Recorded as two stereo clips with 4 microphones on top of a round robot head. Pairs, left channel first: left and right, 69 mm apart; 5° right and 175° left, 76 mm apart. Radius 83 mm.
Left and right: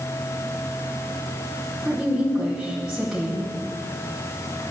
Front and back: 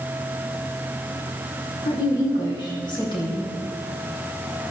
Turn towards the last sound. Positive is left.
turn(degrees=-5)